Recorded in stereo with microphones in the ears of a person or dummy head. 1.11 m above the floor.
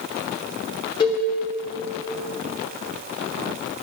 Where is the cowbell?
20° left (ahead or behind), 1.2 m.